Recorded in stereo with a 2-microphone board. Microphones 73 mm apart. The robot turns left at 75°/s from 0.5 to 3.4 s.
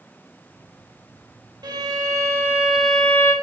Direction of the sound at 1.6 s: 85° right.